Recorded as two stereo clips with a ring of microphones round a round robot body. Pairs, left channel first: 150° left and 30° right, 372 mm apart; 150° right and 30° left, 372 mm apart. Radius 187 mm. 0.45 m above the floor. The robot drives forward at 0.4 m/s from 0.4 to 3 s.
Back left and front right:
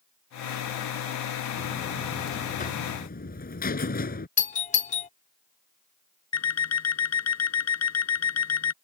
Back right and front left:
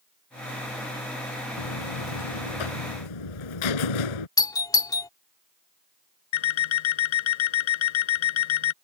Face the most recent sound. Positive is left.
turn(degrees=-160)